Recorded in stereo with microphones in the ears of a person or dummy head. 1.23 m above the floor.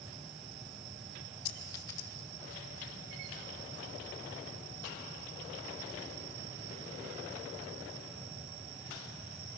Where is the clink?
30° left (ahead or behind), 1.6 m.